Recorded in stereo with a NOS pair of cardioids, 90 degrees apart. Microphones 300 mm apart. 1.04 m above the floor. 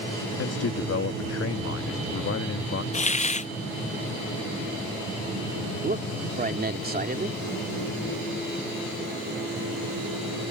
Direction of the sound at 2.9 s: 25° left.